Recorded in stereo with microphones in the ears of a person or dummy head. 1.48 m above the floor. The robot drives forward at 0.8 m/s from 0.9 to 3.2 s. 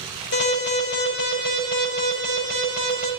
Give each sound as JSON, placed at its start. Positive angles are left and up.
{"t": 0.3, "sound": "an alarm", "side_deg": 60, "distance_m": 6.5}